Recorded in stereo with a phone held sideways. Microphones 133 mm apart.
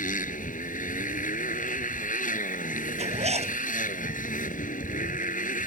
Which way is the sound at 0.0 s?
85° left.